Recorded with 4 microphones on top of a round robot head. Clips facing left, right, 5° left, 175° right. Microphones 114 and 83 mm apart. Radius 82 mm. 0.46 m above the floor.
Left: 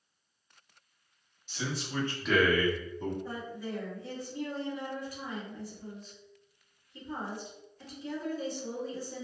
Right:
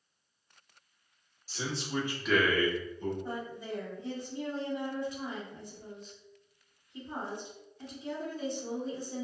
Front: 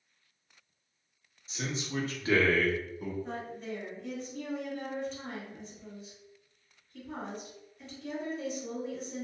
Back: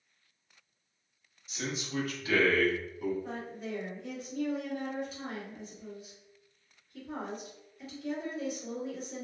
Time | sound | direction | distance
1.5 | a man speaking | 50° right | 1.1 m
3.2 | a woman speaking | 105° right | 1.4 m